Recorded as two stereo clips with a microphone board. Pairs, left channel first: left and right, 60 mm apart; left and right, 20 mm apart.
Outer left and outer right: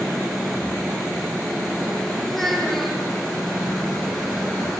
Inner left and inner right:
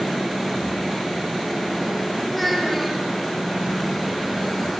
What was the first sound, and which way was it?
A child speaking, 5° left (ahead or behind).